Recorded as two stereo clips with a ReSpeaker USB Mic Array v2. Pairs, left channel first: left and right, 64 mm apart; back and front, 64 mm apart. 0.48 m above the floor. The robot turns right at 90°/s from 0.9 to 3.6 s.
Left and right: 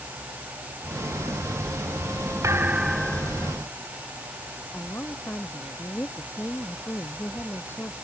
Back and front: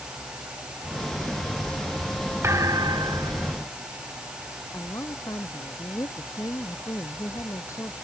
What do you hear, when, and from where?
2.4 s a thud: 50° right; by 3.6 s 55° left
4.7 s a woman speaking: 145° left